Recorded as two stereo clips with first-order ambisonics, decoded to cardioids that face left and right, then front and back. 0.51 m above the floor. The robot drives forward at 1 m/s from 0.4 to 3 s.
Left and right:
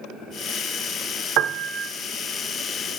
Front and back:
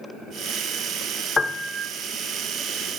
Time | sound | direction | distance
1.4 | a piano | 70° right | 0.5 m